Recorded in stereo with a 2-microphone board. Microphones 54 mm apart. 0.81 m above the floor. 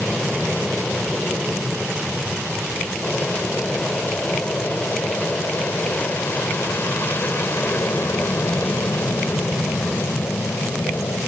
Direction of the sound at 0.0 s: 10° left (ahead or behind).